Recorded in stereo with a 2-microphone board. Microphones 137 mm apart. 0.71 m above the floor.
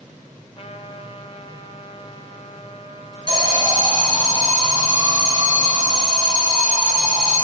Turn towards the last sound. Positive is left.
turn(degrees=-30)  # may be behind; listen again after turning